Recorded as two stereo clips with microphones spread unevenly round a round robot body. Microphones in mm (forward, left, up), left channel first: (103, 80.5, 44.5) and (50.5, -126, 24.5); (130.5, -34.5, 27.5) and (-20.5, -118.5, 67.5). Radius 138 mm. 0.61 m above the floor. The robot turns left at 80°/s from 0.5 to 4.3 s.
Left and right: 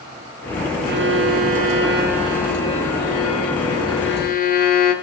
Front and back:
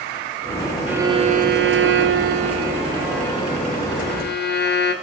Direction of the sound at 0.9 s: 60° right.